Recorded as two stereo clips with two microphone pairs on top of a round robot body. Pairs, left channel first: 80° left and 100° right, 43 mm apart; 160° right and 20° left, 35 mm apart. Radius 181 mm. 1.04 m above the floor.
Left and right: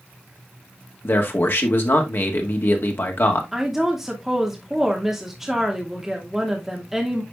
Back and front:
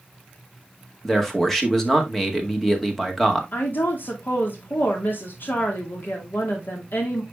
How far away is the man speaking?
About 1.7 m.